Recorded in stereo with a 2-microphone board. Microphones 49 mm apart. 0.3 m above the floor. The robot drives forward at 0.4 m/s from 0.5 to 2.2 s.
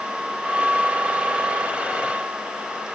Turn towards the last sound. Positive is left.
No sound to turn to.